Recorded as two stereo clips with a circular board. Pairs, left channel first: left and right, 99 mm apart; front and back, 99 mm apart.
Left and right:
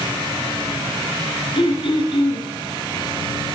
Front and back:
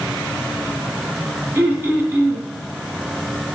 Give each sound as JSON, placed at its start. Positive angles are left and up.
{"t": 1.6, "sound": "throat clearing", "azimuth_deg": 115, "distance_m": 2.0}